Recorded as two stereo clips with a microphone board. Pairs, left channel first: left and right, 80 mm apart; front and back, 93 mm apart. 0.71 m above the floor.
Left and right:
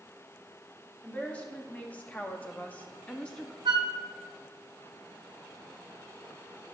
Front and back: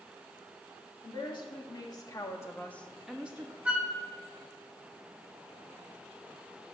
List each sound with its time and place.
1.0 s a woman speaking: 20° left, 2 m; by 3.5 s 160° left, 1.0 m
3.6 s a flute: 105° right, 0.8 m